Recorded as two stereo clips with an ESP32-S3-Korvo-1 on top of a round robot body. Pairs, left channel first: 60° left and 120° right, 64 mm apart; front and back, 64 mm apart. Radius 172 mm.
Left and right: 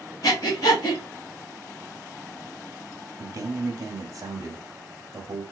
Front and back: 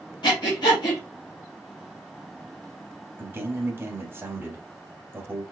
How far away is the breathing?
About 0.6 m.